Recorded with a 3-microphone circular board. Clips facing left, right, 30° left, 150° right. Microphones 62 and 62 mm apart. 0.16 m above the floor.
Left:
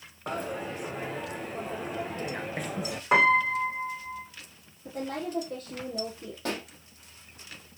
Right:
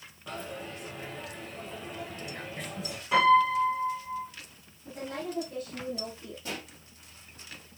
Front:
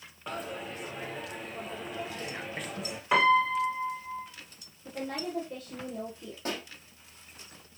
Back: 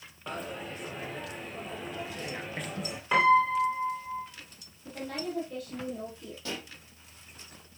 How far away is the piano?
About 6 m.